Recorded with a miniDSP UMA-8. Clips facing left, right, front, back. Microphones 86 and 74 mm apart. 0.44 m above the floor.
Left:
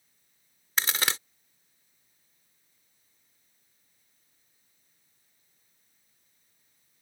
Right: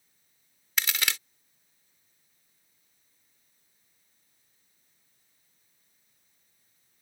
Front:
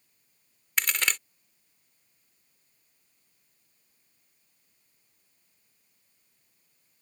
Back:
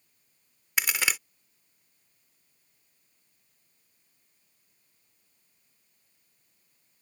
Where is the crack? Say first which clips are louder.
Left 2 dB, even; 105° left.